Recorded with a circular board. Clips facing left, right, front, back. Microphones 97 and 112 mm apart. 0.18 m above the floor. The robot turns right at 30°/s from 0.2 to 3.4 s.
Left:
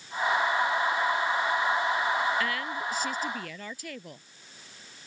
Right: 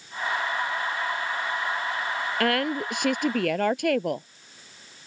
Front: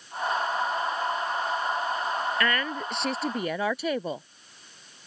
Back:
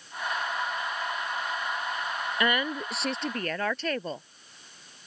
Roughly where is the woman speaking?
Right.